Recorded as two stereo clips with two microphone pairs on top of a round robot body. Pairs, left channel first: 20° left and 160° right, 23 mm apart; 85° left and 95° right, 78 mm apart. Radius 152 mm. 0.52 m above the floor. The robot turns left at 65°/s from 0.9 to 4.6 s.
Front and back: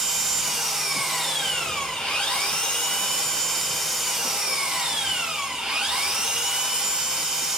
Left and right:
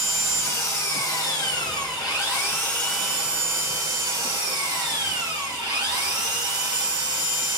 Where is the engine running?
135° left, 2.5 m; by 7.6 s 105° right, 2.5 m.